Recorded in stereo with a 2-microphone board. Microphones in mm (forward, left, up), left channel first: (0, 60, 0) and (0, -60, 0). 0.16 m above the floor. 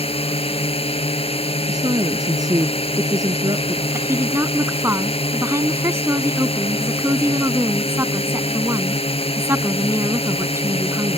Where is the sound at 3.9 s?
20° right (ahead or behind).